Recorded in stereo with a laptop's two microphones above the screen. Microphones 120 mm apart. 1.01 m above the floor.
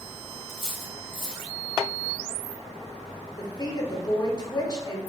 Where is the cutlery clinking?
45° left (ahead or behind), 1.2 m.